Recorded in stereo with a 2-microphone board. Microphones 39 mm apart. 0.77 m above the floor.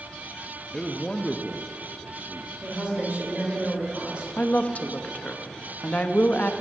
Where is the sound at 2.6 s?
30° right (ahead or behind), 3.5 m.